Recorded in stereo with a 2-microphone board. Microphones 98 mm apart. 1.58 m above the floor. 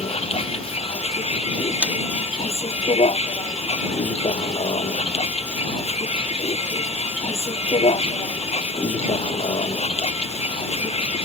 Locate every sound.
0.0 s a vehicle: 80° left
1.8 s a man speaking: 10° right (ahead or behind)